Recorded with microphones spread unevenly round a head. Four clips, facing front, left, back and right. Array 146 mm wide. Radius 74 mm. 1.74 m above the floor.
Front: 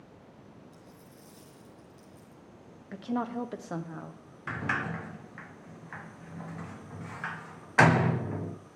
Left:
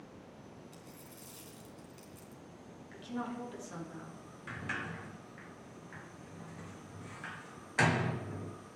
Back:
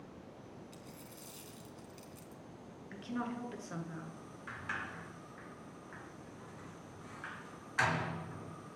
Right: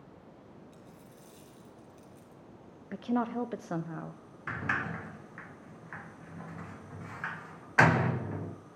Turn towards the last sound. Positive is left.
turn(degrees=-20)